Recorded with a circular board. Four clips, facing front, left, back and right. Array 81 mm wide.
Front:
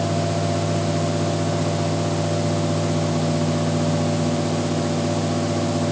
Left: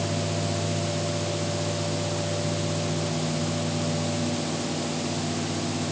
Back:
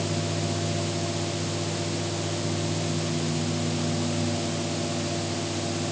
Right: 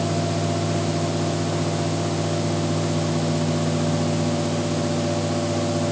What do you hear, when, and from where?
Only background noise.